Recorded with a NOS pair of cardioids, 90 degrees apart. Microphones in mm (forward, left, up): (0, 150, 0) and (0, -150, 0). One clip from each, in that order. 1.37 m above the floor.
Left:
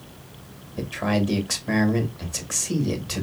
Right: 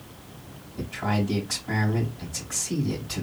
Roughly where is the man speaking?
Ahead left.